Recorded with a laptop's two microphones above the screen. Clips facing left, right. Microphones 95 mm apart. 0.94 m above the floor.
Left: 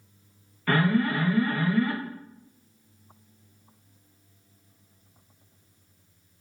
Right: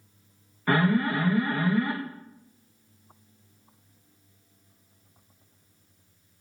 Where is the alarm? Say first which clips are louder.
Even; 15° right (ahead or behind), 0.5 m.